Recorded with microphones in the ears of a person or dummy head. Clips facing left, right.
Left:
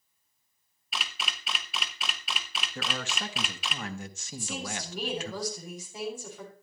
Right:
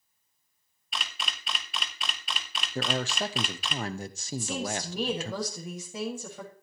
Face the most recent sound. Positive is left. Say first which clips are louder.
# right 5 dB
turn(degrees=-55)  # may be behind; listen again after turning